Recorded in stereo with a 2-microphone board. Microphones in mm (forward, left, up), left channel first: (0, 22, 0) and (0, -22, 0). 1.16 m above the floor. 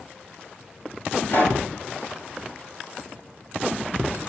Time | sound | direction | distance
1.3 | a pop | 55° left (ahead or behind) | 5.5 m